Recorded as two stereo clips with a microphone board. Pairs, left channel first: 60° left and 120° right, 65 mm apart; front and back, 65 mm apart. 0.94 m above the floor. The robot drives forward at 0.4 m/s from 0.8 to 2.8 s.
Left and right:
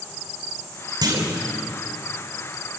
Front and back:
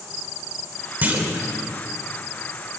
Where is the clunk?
115° right, 3 m; by 1.4 s 120° right, 3 m.